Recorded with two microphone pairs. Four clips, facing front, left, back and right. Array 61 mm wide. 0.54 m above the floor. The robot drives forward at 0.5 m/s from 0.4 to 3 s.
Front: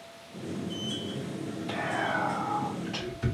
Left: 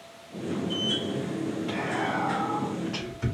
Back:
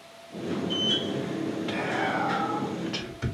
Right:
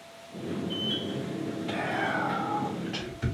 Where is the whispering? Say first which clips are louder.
Right 1 dB, even; 175° left, 2 m; by 3.2 s straight behind, 2.5 m.